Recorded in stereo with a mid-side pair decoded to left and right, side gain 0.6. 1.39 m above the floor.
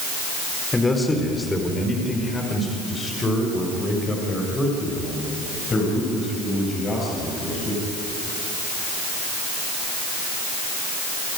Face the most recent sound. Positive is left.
turn(degrees=30)